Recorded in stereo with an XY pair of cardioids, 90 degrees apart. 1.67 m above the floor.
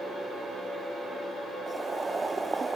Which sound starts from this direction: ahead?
Boiling, at 1.7 s.